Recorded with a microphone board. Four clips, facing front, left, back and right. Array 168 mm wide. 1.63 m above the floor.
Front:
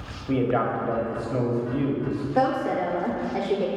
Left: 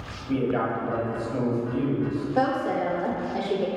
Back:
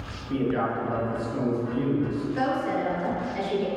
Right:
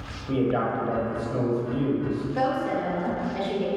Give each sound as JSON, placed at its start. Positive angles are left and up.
{"t": 0.3, "sound": "a man speaking", "azimuth_deg": -20, "distance_m": 1.6}
{"t": 2.4, "sound": "a woman speaking", "azimuth_deg": 25, "distance_m": 1.0}